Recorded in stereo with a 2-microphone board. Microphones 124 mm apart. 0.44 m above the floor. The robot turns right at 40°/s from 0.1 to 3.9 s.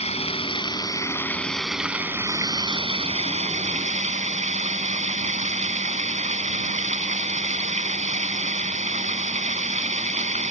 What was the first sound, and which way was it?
Running water, 115° left.